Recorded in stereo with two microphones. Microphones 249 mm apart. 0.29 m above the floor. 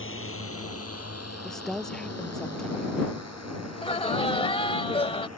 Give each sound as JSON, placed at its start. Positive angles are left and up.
{"t": 0.0, "sound": "a drone", "side_deg": 55}
{"t": 1.4, "sound": "a woman speaking", "side_deg": 0}
{"t": 3.7, "sound": "laughter", "side_deg": 20}